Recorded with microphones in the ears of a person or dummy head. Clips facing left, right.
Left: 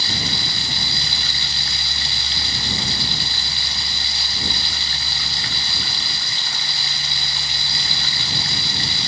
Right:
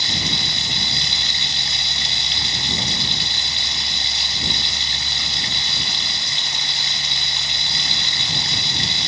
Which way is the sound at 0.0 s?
20° right (ahead or behind).